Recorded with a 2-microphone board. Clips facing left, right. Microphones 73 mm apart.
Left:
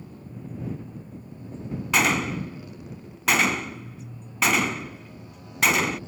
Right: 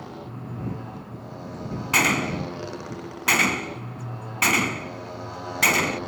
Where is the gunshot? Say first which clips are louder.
Even; centre (ahead or behind).